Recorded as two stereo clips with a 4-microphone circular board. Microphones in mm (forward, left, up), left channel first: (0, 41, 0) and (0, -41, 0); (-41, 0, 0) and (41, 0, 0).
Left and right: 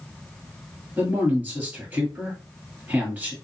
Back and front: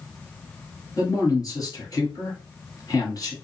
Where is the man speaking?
155° right, 1.6 m.